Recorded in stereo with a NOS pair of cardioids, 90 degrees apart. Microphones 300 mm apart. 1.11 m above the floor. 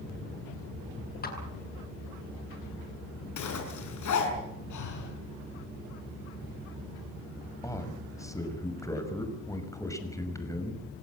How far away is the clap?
About 9 m.